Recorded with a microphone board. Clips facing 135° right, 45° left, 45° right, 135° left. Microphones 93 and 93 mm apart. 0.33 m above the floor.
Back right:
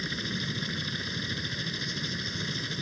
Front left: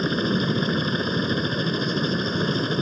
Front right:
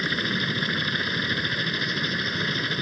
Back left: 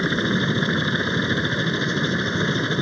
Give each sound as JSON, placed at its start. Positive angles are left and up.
{"t": 0.0, "sound": "a helicopter", "azimuth_deg": 75}